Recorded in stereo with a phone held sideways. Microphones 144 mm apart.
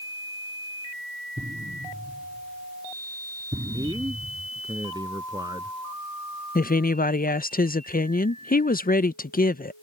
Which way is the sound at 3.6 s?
30° right (ahead or behind).